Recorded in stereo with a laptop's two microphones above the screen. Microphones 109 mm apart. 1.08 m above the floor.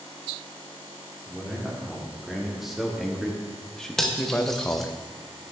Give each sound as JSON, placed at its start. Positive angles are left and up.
{"t": 1.3, "sound": "a man speaking", "side_deg": -5, "distance_m": 2.5}
{"t": 4.0, "sound": "cutlery clinking", "side_deg": 5, "distance_m": 0.6}